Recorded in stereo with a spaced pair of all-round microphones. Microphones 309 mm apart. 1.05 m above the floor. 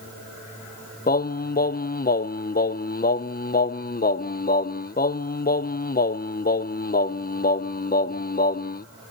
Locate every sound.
1.1 s singing: 30° left (ahead or behind), 0.5 m